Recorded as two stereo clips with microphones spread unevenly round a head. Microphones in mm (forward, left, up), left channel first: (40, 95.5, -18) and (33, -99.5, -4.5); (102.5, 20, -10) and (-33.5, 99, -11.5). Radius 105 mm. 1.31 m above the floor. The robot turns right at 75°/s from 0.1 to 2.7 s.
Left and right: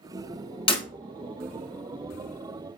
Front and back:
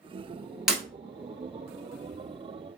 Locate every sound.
0.7 s breaking glass: 65° left, 1.3 m; by 0.8 s 75° left, 1.3 m